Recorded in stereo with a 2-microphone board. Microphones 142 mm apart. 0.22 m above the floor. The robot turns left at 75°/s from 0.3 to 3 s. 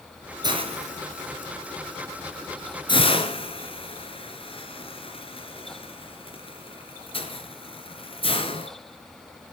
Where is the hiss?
30° right (ahead or behind), 2.5 m; by 8.7 s 40° left (ahead or behind), 2.5 m.